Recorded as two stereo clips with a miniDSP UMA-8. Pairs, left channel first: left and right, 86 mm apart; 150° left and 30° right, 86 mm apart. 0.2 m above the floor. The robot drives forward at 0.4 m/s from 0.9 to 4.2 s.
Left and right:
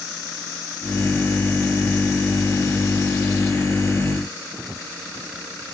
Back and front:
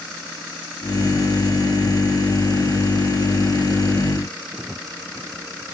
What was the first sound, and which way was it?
Only background noise.